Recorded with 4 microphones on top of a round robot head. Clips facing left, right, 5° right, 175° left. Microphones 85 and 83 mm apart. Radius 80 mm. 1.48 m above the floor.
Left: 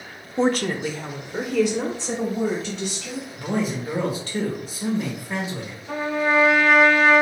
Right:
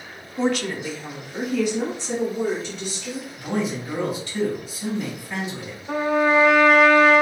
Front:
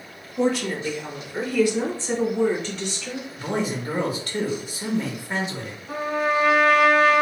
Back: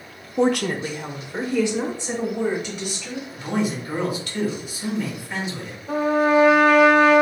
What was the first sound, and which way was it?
A woman speaking, 155° left.